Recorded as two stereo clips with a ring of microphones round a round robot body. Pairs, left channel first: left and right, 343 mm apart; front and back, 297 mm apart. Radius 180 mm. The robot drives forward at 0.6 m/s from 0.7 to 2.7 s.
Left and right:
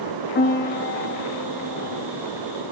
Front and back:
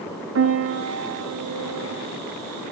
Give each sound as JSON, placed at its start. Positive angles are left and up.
{"t": 0.3, "sound": "a piano", "azimuth_deg": 150, "distance_m": 1.9}